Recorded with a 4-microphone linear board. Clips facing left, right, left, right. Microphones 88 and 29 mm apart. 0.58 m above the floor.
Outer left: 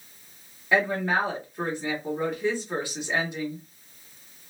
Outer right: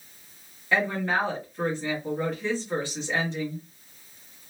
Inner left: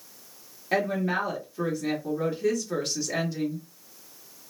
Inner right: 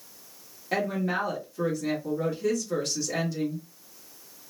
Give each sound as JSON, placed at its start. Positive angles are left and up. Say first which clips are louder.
{"t": 0.7, "sound": "a woman speaking", "louder": "outer left 2 dB, inner left 2 dB", "side_deg": 15, "distance_m": 1.3}